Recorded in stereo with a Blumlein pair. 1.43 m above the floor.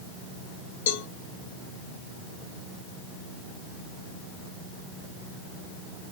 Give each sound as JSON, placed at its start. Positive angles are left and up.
{"t": 0.9, "sound": "a cowbell", "azimuth_deg": 55, "distance_m": 0.5}